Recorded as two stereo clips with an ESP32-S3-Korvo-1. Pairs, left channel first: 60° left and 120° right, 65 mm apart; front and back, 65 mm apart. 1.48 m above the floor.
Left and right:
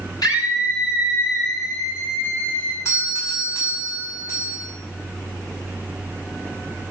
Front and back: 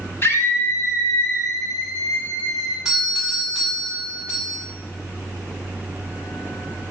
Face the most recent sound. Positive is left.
turn(degrees=100)